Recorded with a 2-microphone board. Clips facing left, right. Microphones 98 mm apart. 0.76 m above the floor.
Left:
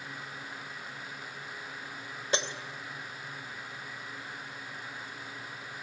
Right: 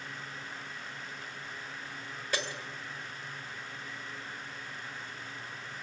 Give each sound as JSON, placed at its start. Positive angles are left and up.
{"t": 2.3, "sound": "breaking glass", "side_deg": 25, "distance_m": 1.7}